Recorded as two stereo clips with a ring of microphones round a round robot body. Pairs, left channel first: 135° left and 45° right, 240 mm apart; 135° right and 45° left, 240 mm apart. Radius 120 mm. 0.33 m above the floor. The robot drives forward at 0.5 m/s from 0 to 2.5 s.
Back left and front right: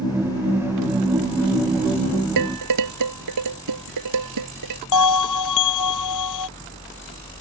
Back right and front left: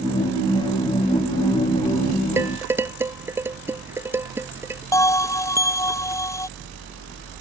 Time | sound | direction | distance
2.4 | dishes clattering | 35° right | ?
4.9 | a bell | 145° left | ?